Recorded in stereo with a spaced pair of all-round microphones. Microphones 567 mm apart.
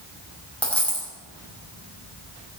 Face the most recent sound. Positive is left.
turn(degrees=0)  # may be behind; listen again after turning